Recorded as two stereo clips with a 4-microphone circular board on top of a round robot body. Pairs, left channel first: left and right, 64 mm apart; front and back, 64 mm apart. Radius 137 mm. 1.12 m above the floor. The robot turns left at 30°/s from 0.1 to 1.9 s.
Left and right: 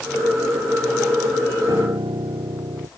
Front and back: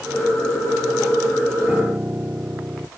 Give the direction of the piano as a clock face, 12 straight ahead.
3 o'clock.